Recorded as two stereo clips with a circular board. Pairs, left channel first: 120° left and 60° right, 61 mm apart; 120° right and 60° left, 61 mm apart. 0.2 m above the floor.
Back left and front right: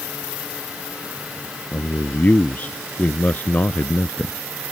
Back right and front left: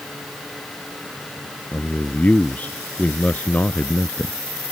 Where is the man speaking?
Straight behind.